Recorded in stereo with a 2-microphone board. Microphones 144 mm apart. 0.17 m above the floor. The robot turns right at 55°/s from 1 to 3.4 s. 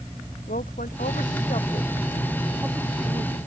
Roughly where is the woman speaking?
Left.